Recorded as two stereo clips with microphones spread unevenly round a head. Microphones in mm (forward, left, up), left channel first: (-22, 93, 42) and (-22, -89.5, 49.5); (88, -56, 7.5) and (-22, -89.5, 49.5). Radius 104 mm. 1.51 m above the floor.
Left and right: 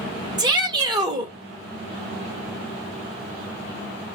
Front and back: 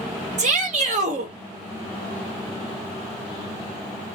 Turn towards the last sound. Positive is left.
turn(degrees=-160)